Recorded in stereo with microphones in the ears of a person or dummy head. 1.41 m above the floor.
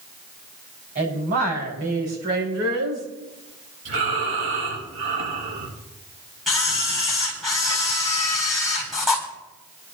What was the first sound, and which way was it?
A woman speaking, 40° right (ahead or behind).